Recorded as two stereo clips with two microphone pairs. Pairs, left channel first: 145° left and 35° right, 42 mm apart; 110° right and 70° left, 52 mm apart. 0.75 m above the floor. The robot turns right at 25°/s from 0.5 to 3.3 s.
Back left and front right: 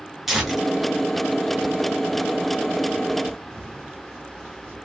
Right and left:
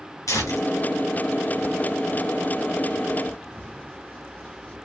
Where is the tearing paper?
115° right, 1.6 m; by 4.8 s 45° right, 1.6 m.